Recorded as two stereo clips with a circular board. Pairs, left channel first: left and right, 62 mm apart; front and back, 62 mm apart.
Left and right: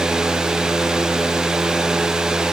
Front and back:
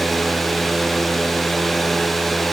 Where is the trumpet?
No trumpet in this recording.